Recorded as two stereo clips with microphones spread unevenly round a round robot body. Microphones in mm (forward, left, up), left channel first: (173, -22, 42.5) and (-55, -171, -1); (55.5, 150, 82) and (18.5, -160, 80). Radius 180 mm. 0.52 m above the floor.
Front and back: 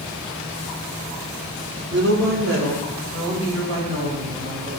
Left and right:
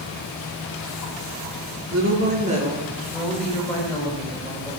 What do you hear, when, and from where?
1.9 s a woman speaking: 125° right, 1.6 m; by 4.7 s 155° left, 3.5 m